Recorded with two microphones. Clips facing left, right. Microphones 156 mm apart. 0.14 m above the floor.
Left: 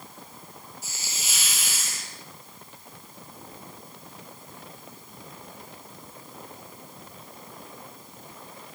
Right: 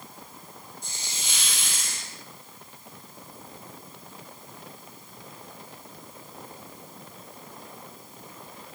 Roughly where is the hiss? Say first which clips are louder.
Even; centre.